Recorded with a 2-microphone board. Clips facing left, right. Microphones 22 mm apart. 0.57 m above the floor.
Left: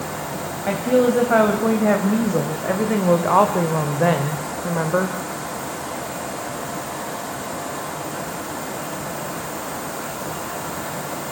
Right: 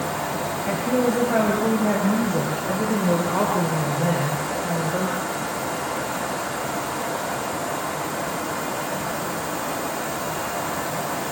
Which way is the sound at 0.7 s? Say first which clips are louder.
Left 5 dB; 35° left (ahead or behind).